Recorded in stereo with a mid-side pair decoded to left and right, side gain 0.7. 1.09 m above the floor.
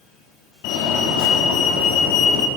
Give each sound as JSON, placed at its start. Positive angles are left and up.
{"t": 0.6, "sound": "a fire alarm", "azimuth_deg": 70, "distance_m": 4.0}